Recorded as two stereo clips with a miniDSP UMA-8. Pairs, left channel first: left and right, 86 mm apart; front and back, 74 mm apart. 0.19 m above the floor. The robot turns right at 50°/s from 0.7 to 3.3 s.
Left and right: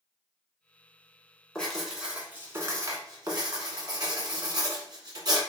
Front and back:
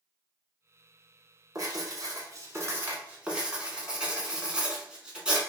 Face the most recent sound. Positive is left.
turn(degrees=-105)